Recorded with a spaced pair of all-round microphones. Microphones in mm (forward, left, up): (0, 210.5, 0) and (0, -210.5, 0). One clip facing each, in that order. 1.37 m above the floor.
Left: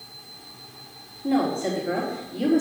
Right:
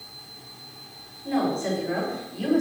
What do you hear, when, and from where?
1.2 s a woman speaking: 85° left, 3 m